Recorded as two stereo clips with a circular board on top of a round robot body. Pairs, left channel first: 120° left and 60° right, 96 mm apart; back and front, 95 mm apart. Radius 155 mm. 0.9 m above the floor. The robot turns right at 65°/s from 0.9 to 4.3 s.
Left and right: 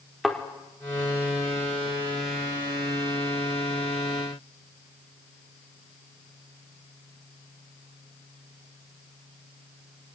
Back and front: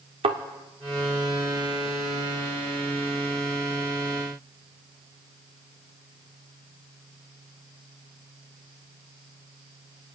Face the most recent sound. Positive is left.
turn(degrees=-110)